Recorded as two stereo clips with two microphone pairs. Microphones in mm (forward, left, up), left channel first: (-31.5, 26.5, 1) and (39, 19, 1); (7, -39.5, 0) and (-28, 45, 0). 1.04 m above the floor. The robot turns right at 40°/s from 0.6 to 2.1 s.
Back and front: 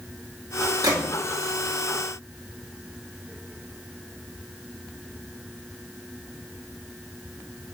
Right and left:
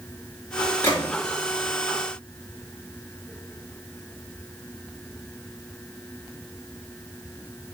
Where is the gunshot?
10° right, 1.2 m; by 1.1 s straight ahead, 1.2 m.